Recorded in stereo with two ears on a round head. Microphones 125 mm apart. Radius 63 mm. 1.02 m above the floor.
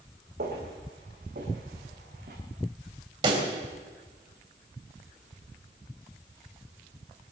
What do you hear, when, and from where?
0.4 s footsteps: 75° right (ahead or behind), 5 m; by 2.4 s 80° right, 5.5 m
3.2 s a pop: 35° right (ahead or behind), 3 m